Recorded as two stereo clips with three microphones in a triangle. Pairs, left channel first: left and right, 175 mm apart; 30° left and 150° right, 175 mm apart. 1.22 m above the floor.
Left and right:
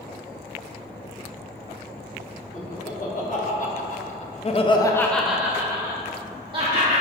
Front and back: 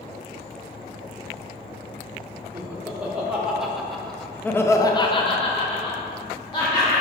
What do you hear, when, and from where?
2.5 s laughter: 130° left, 2 m; by 7.0 s 35° right, 1.9 m